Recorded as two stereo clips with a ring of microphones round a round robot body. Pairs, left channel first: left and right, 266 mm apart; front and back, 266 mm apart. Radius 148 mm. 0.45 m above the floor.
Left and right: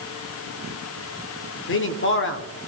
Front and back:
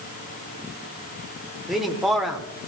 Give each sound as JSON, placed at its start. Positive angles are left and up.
{"t": 1.7, "sound": "a man speaking", "azimuth_deg": 90, "distance_m": 1.3}